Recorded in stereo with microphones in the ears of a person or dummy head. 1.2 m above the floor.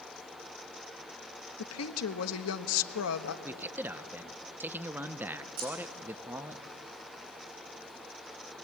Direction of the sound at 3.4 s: 15° right (ahead or behind).